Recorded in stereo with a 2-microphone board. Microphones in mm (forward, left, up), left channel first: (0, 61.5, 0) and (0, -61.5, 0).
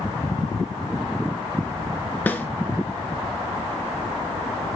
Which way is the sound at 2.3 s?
15° left (ahead or behind).